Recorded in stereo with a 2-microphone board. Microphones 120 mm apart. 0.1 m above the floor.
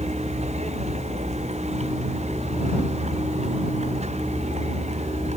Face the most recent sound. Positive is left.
turn(degrees=-70)  # may be behind; listen again after turning